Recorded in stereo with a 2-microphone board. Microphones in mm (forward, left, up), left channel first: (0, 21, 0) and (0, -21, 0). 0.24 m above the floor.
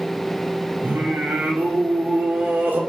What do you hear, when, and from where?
0.8 s singing: 45° right (ahead or behind), 0.9 m